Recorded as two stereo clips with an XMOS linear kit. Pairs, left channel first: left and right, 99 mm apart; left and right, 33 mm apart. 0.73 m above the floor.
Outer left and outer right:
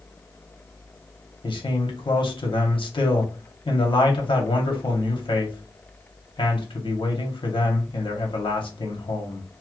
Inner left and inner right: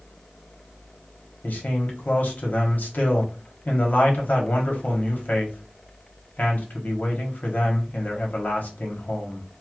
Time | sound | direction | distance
1.4 | a man speaking | 55° left (ahead or behind) | 1.1 m